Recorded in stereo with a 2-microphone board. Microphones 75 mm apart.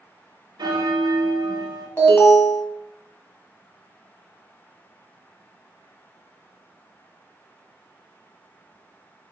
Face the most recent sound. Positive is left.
turn(degrees=30)  # may be behind; listen again after turning